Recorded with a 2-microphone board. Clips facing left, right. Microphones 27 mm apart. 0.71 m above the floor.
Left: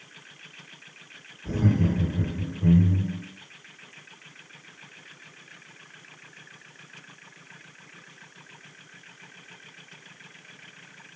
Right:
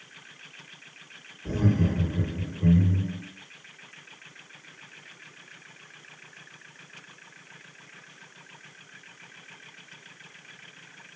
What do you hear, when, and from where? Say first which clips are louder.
1.4 s laughter: left 1 dB; 65° right (ahead or behind), 1.6 m